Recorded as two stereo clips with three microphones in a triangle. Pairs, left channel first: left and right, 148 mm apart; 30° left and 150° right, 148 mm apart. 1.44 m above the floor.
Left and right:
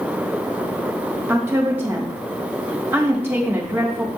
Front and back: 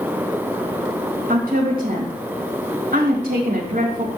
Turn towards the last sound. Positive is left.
turn(degrees=-165)